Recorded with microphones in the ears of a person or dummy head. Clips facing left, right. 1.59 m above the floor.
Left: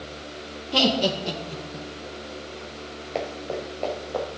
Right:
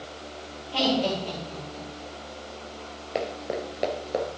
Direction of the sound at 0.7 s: 65° left (ahead or behind).